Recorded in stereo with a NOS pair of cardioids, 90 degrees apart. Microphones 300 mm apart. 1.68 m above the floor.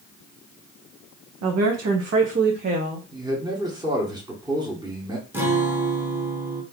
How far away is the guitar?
About 1.4 m.